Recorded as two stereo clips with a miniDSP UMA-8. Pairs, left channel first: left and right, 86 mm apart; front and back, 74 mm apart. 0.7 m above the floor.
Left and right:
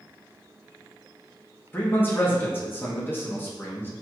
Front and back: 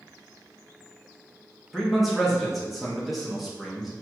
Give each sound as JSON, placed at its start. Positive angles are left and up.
{"t": 1.7, "sound": "a man speaking", "azimuth_deg": 95, "distance_m": 0.8}